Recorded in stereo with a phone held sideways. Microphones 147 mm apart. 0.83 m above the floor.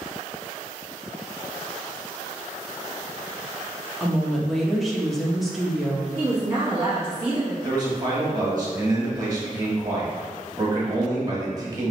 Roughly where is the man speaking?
Right.